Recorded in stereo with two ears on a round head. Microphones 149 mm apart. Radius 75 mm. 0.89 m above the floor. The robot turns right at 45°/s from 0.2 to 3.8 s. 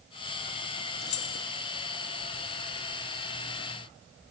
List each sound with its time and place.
1.0 s keys jangling: 60° left (ahead or behind), 0.9 m; by 1.4 s 75° left (ahead or behind), 0.9 m